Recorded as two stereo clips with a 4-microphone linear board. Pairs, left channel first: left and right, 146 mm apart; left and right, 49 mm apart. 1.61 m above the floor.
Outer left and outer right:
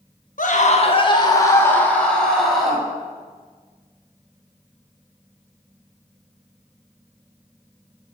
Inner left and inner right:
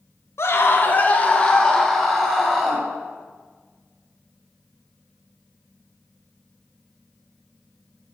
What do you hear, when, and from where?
0.4 s a scream: 65° left (ahead or behind), 1.5 m; by 2.8 s centre (ahead or behind), 3.5 m